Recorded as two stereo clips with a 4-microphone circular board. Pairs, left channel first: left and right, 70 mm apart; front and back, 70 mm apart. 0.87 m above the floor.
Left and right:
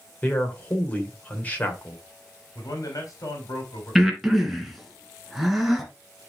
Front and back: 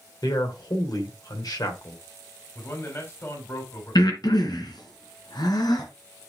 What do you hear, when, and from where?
0.2 s a man speaking: 20° left, 3 m
2.5 s a man speaking: 55° left, 3 m
4.0 s breathing: straight ahead, 2 m